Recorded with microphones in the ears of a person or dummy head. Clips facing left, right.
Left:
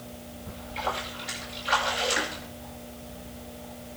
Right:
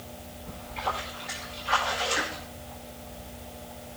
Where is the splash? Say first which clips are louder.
Left 1 dB; 50° left (ahead or behind), 8.5 m.